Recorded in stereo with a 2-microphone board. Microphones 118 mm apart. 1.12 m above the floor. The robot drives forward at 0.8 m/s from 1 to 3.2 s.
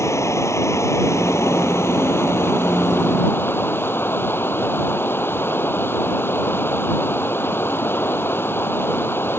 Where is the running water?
25° left (ahead or behind); by 9.4 s 20° left (ahead or behind).